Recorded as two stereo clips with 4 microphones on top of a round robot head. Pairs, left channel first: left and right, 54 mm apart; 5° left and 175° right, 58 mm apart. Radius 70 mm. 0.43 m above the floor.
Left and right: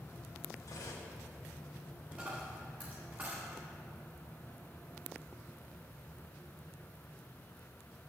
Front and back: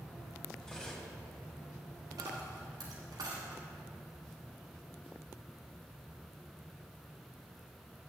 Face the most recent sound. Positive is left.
turn(degrees=-155)